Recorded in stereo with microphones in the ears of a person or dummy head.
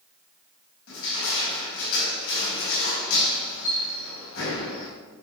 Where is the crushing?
75° left (ahead or behind), 5.5 m.